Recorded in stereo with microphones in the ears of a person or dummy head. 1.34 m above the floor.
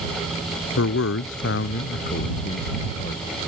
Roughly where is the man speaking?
Left.